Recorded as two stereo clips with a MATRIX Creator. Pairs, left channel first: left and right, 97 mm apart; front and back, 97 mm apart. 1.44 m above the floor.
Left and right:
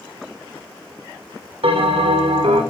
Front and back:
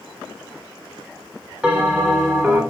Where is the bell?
95° right, 3 m.